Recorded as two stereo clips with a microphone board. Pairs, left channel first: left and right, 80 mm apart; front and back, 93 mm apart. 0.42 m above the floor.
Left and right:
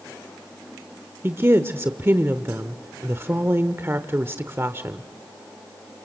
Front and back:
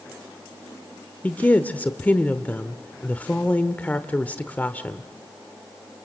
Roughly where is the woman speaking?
Ahead right.